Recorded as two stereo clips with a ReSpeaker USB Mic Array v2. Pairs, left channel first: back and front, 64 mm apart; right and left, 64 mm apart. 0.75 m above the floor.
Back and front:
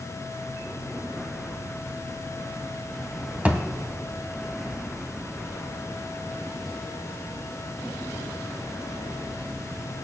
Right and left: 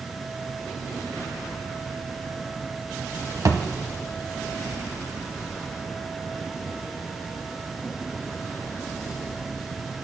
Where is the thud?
65° left, 1.3 m.